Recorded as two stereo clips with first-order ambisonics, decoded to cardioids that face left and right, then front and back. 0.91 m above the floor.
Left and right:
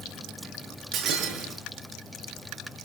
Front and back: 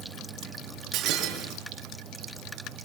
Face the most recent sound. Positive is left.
turn(degrees=-135)